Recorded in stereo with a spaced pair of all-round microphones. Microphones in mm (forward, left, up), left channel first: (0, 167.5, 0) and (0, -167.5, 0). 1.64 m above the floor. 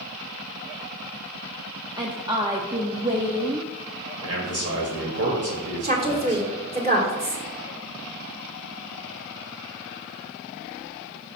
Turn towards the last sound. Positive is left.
turn(degrees=-25)  # may be behind; listen again after turning